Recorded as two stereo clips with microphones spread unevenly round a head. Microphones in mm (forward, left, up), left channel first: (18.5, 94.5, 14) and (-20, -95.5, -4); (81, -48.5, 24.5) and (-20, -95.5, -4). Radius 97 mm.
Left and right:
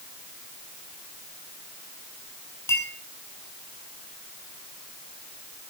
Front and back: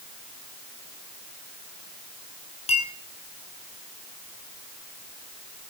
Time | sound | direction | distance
2.7 | a clink | straight ahead | 6 m